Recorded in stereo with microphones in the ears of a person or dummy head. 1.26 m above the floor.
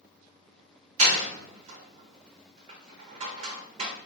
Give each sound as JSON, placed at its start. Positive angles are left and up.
{"t": 1.0, "sound": "a door slam", "side_deg": -35, "distance_m": 0.8}